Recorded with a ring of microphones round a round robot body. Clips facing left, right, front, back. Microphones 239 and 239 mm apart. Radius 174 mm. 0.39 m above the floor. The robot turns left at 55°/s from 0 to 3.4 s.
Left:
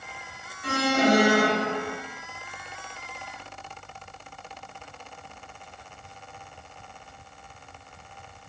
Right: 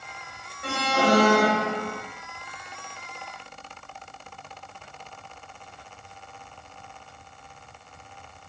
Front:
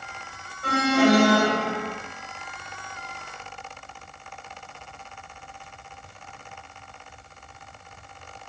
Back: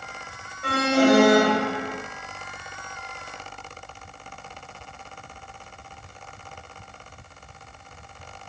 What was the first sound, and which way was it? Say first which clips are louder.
An alarm: left 2 dB, back 1 dB; 110° right.